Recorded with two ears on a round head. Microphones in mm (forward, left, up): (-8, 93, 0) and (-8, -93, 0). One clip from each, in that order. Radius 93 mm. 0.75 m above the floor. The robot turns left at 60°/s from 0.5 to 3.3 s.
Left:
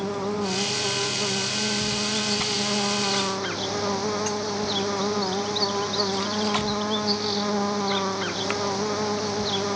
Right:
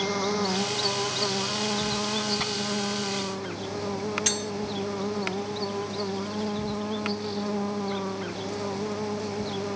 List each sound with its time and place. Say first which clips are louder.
0.0 s an insect: right 1 dB; 65° right; by 9.8 s 130° left
2.4 s tearing paper: left 3 dB; 10° right (ahead or behind); by 2.5 s 15° right (ahead or behind)
4.3 s cutlery clinking: even; 70° right (ahead or behind)